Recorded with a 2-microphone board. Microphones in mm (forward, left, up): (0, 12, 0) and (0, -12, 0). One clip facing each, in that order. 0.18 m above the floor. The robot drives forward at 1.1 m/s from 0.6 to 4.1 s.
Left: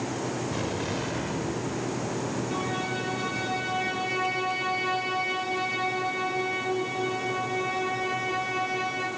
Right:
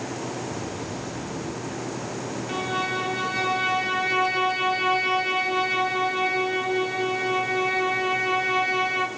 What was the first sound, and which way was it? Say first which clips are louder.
An explosion: left 2 dB; 45° left (ahead or behind).